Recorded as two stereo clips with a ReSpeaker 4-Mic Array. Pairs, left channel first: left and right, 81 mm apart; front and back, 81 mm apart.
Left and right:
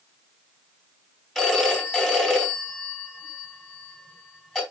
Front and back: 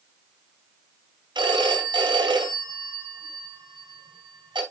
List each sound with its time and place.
1.4 s a phone ringing: 175° left, 2.5 m